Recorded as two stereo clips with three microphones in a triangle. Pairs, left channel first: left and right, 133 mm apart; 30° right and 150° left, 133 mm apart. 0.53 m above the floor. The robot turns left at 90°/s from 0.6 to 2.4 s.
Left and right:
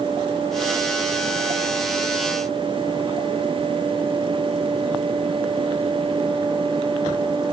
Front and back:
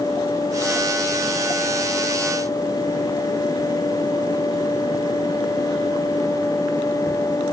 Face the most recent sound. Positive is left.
No sound to turn to.